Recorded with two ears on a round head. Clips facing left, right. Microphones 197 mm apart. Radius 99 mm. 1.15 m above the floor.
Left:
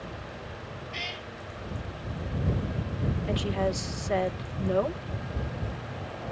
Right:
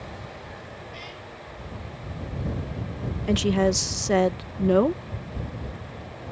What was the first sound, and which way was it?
A cat meowing, 65° left (ahead or behind).